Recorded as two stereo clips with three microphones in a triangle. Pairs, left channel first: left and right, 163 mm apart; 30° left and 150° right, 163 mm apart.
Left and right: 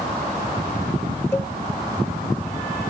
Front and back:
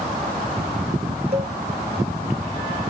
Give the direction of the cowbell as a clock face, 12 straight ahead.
7 o'clock.